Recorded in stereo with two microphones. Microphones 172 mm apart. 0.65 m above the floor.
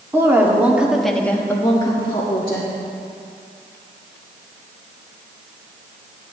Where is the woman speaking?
15° right (ahead or behind), 1.8 m; by 2.7 s 30° left (ahead or behind), 1.8 m.